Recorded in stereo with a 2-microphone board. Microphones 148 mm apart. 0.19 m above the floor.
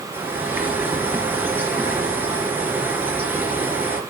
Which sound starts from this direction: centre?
A bird, at 0.1 s.